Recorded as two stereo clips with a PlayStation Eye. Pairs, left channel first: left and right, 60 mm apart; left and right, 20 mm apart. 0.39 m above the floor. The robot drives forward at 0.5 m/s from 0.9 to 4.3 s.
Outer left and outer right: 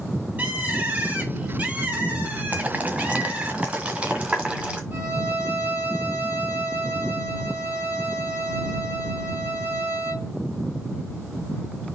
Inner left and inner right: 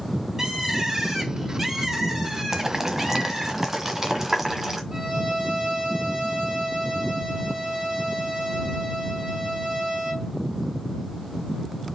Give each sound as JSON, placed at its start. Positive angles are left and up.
{"t": 0.4, "sound": "a bird", "side_deg": -30, "distance_m": 2.5}
{"t": 2.5, "sound": "boiling", "side_deg": -30, "distance_m": 1.5}
{"t": 4.9, "sound": "a violin", "side_deg": -40, "distance_m": 3.0}